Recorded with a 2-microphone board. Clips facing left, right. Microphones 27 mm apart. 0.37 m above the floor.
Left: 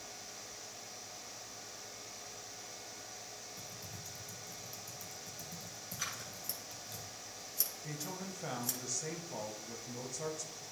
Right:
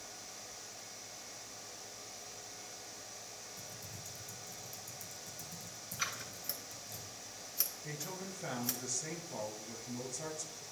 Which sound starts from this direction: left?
Typing on a keyboard, at 3.6 s.